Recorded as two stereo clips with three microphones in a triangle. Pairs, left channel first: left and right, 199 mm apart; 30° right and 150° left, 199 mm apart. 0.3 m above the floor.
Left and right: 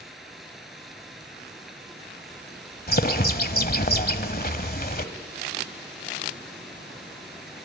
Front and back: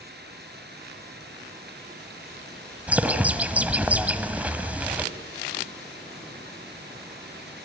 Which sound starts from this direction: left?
A bird, at 2.9 s.